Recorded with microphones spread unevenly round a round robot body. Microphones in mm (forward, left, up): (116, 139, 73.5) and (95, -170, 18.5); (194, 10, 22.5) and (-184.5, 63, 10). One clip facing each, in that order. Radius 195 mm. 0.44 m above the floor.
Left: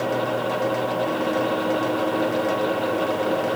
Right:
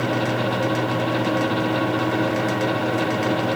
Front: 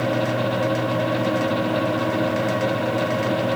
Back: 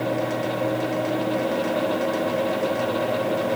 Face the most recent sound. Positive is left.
No sound to turn to.